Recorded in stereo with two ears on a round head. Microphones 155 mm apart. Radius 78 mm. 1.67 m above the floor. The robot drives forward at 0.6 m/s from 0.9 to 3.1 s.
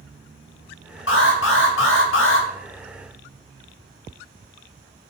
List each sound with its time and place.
1.1 s an alarm: 80° left, 3 m; by 2.5 s 85° left, 2.5 m